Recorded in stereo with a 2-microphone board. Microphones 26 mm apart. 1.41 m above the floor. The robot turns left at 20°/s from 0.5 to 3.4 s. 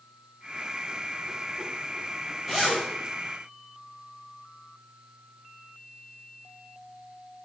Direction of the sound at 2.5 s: 10° right (ahead or behind).